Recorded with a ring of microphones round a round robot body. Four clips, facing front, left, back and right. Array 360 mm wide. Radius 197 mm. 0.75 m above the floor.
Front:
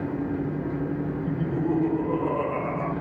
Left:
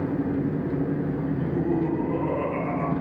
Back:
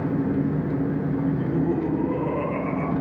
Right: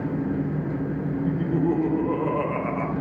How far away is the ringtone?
I don't hear a ringtone.